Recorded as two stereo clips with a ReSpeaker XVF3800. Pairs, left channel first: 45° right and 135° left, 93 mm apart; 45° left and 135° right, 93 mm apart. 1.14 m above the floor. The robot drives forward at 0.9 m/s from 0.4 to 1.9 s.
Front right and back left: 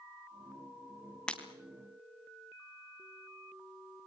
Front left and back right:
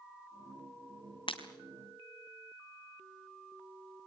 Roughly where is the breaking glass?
Ahead left.